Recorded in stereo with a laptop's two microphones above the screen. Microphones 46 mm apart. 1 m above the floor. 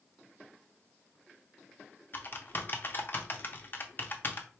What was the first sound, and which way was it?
Typing on a keyboard, 45° left (ahead or behind).